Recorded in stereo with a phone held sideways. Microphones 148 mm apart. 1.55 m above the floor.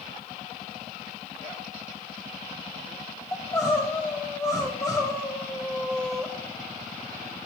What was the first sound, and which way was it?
Crying, 20° left (ahead or behind).